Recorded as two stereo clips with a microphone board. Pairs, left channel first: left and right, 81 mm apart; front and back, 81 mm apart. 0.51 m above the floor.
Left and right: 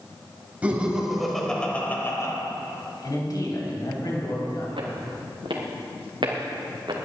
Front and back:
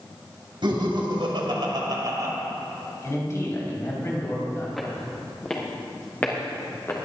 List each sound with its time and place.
0.6 s laughter: 165° right, 3 m; by 2.3 s 135° left, 2.5 m
3.0 s a man speaking: 55° left, 3.5 m
4.8 s footsteps: 85° right, 3.5 m; by 7.0 s 60° right, 2.5 m